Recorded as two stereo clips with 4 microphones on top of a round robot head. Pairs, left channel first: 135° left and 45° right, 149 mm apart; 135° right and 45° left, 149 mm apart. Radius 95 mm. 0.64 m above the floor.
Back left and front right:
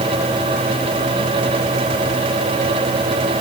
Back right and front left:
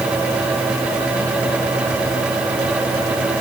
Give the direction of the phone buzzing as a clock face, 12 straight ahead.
No phone buzzing in this recording.